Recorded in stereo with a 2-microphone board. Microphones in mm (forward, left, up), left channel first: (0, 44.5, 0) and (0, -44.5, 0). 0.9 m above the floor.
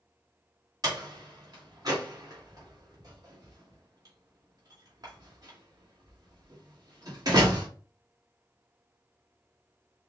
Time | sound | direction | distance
0.8 | a door slam | 50° right (ahead or behind) | 2.5 m